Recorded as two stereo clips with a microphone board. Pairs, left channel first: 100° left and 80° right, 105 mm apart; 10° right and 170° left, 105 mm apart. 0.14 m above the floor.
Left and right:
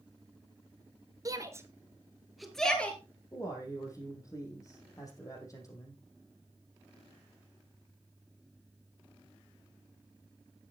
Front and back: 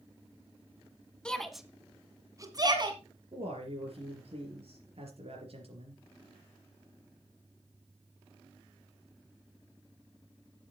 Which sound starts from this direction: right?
A shout, at 1.2 s.